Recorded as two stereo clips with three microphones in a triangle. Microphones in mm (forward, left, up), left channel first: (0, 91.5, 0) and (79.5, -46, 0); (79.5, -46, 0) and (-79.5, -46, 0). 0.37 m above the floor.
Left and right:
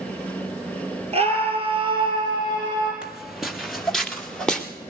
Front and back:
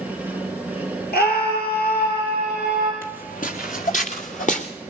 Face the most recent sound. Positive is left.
turn(degrees=35)